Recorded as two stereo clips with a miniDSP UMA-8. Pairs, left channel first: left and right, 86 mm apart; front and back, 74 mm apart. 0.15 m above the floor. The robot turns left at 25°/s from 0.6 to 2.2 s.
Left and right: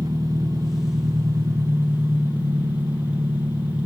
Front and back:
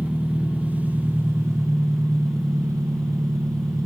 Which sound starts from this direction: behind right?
An engine running, at 0.0 s.